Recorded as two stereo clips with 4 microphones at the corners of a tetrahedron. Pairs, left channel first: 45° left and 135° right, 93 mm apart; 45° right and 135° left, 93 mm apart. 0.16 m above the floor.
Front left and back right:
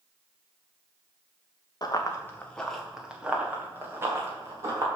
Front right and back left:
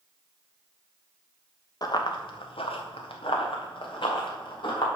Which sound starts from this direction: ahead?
Running footsteps, at 1.8 s.